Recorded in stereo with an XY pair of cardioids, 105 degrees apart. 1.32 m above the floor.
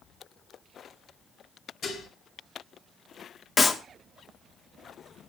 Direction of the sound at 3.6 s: 30° left.